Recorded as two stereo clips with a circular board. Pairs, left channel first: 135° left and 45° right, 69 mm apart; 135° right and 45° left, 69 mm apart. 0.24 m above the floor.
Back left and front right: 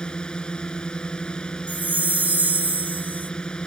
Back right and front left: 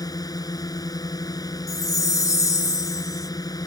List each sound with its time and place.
0.0 s a drone: 150° right
1.7 s a chime: 110° right